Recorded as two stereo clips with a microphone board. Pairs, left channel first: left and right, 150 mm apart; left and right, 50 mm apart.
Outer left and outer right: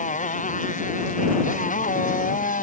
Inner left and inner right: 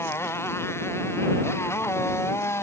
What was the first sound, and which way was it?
A motorcycle, 55° left (ahead or behind).